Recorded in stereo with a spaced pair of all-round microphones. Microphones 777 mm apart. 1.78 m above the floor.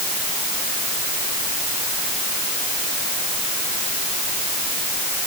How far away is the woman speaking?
No woman speaking in this recording.